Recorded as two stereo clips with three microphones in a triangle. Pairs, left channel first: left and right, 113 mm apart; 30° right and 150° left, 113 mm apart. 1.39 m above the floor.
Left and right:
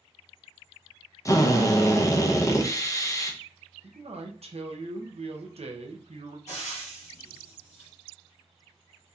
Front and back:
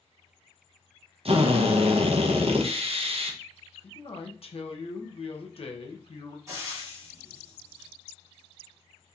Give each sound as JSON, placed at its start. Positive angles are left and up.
{"t": 1.2, "sound": "a drill", "azimuth_deg": 145, "distance_m": 0.6}
{"t": 3.8, "sound": "a man speaking", "azimuth_deg": -65, "distance_m": 0.7}
{"t": 6.5, "sound": "frying", "azimuth_deg": 90, "distance_m": 1.5}